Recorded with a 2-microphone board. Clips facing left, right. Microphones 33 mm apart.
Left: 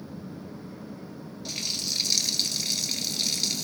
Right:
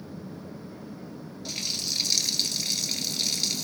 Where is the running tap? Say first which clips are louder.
Even; centre (ahead or behind), 1.8 m.